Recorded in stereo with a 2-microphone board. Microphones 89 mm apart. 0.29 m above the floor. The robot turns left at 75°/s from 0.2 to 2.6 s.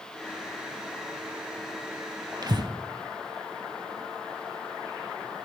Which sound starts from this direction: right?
Breathing, at 2.4 s.